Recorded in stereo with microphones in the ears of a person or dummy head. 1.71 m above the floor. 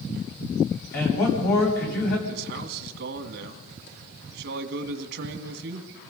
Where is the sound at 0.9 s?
60° left (ahead or behind), 9 m.